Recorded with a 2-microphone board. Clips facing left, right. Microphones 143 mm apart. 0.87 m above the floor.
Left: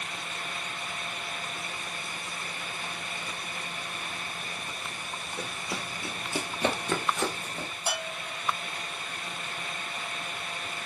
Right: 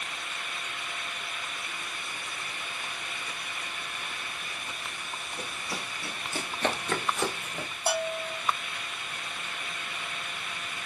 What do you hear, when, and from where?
5.4 s running footsteps: 25° left (ahead or behind), 1.3 m; by 7.7 s 5° right (ahead or behind), 0.9 m
7.9 s a bell: 35° right (ahead or behind), 1.6 m